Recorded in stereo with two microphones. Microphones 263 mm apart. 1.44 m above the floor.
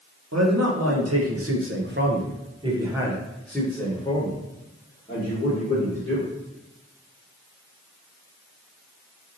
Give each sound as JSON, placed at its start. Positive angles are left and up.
{"t": 0.3, "sound": "a man speaking", "side_deg": -80, "distance_m": 1.3}